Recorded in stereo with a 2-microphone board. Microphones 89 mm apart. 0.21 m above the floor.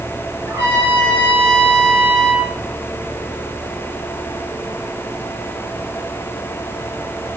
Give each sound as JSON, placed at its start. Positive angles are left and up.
{"t": 0.5, "sound": "a trumpet", "side_deg": -30, "distance_m": 3.5}